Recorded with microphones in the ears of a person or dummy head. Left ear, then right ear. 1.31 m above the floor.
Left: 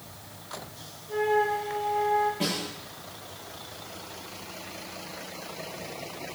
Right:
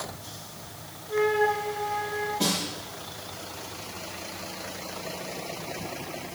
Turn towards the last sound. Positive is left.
turn(degrees=25)  # may be behind; listen again after turning